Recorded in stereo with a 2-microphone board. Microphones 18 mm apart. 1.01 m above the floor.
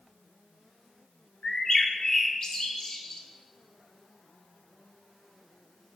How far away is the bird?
About 1.2 m.